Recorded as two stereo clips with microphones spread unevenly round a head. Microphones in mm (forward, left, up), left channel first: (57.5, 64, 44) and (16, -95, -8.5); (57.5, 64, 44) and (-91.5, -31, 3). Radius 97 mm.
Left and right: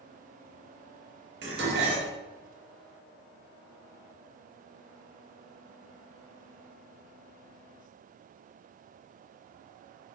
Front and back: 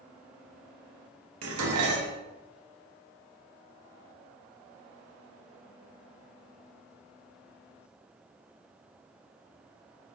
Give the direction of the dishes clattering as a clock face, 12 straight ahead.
5 o'clock.